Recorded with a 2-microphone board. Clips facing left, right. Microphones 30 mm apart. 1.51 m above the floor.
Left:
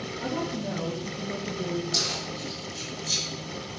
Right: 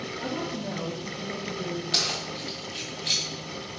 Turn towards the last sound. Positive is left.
turn(degrees=-70)  # may be behind; listen again after turning